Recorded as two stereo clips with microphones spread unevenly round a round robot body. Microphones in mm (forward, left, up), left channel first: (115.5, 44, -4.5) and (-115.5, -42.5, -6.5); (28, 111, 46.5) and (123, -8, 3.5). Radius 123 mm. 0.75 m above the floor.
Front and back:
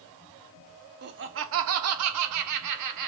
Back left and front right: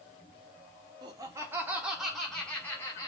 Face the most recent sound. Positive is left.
turn(degrees=-150)